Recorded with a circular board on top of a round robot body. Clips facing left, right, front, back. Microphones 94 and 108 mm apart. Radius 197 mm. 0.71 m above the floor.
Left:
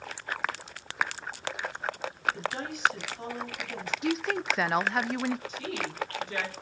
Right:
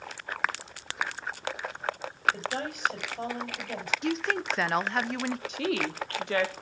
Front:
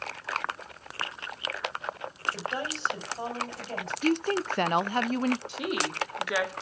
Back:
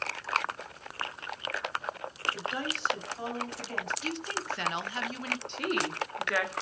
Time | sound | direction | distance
2.3 | a woman speaking | 60° right | 4 m
4.0 | a woman speaking | straight ahead | 0.5 m
5.5 | a woman speaking | 80° right | 1.6 m